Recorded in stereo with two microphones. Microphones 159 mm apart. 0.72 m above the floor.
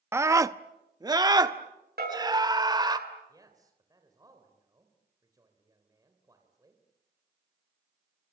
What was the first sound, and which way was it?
A scream, 15° right (ahead or behind).